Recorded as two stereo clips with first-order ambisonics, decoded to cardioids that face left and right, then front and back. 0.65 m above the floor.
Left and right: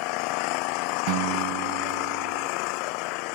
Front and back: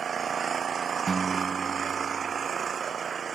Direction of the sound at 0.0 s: 110° left.